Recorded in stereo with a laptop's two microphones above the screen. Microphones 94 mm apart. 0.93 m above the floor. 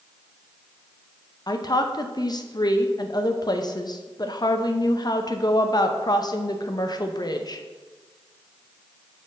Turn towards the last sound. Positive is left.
turn(degrees=45)  # may be behind; listen again after turning